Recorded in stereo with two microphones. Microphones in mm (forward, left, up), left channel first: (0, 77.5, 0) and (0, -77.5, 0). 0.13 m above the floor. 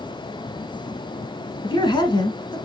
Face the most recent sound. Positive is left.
turn(degrees=30)  # may be behind; listen again after turning